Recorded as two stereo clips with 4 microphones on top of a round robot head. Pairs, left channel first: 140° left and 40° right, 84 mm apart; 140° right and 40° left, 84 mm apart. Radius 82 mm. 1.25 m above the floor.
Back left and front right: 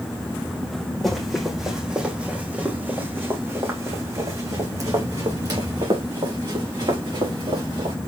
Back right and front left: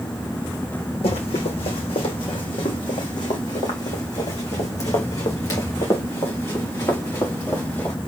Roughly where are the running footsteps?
Behind right.